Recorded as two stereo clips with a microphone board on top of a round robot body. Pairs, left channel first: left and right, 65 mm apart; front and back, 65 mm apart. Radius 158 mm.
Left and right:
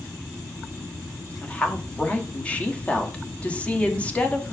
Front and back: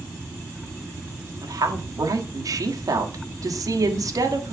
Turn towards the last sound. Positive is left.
turn(degrees=160)